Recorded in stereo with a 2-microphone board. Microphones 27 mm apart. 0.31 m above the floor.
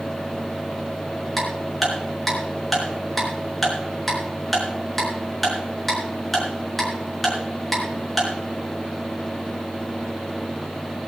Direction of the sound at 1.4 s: 5° left (ahead or behind).